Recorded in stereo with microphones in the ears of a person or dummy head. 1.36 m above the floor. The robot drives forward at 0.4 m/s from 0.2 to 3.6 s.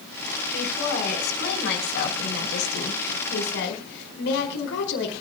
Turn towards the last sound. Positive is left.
turn(degrees=60)  # may be behind; listen again after turning